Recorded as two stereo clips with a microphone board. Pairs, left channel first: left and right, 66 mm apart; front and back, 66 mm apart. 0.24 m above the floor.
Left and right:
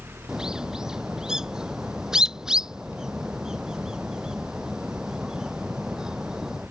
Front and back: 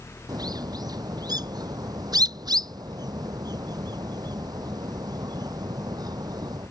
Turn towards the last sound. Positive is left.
turn(degrees=-170)